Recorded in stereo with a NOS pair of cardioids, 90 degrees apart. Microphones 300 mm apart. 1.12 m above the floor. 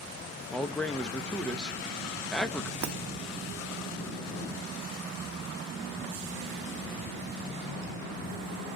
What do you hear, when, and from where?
0.5 s a man speaking: 5° left, 0.9 m
2.8 s breaking glass: 65° right, 0.9 m